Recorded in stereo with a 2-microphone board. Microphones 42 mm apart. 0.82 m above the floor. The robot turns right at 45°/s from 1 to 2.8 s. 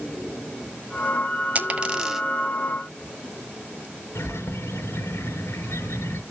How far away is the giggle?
I don't hear a giggle.